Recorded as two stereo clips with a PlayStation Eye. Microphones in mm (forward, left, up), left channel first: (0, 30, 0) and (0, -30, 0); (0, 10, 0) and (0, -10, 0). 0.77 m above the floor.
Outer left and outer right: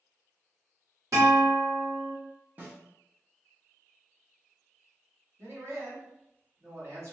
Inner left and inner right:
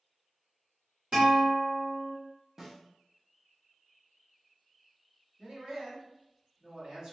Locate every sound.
1.1 s a guitar: 60° right (ahead or behind), 1.7 m
2.6 s a snare drum: 30° right (ahead or behind), 0.8 m
5.4 s a man speaking: 45° right (ahead or behind), 1.5 m